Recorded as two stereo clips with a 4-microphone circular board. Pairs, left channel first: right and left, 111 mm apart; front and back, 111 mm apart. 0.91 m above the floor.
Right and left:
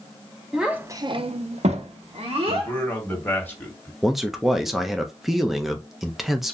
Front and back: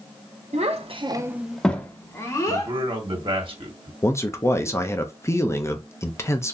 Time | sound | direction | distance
0.5 | a child speaking | straight behind | 0.8 m
2.5 | a man speaking | 160° right | 1.4 m
4.0 | a man speaking | 5° left | 0.6 m